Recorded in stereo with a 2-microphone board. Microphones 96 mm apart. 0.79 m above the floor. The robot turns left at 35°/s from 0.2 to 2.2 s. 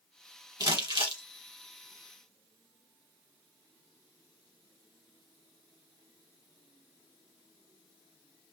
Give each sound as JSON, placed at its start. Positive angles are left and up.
{"t": 0.6, "sound": "crumpling", "side_deg": -40, "distance_m": 1.0}